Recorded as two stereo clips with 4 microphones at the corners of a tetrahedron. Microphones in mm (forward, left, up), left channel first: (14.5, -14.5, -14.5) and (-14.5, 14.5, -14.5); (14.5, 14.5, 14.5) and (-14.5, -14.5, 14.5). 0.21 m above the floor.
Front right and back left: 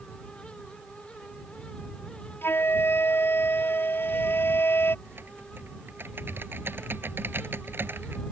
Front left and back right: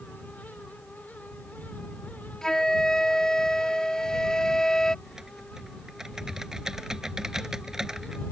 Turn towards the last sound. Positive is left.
turn(degrees=150)